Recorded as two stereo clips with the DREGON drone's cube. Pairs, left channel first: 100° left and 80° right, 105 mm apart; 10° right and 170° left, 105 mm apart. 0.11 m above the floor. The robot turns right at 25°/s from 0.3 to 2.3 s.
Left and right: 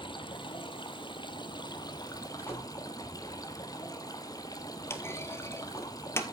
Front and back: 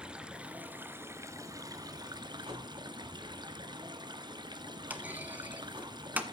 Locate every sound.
0.0 s running water: 90° left, 1.1 m; by 6.3 s 140° left, 1.1 m
2.4 s a door slam: 175° left, 7.5 m
4.9 s a clunk: 115° left, 1.3 m